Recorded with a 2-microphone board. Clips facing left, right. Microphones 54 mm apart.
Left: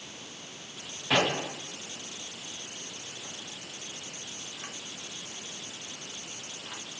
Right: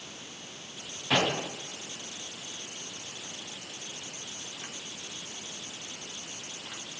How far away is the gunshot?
About 4.5 m.